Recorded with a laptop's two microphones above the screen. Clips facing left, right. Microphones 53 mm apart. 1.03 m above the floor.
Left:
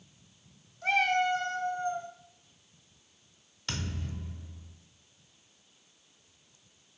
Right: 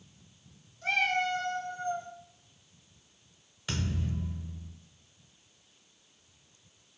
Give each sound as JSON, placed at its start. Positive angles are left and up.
{"t": 0.8, "sound": "a cat meowing", "side_deg": 5, "distance_m": 0.9}
{"t": 3.7, "sound": "a thud", "side_deg": -10, "distance_m": 1.1}